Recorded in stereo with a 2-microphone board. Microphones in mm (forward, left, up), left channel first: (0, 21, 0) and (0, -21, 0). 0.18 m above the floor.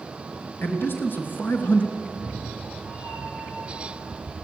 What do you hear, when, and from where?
0.6 s a man speaking: 60° left (ahead or behind), 3 m; by 1.9 s 50° left (ahead or behind), 2 m
2.0 s a cat meowing: 65° left (ahead or behind), 6.5 m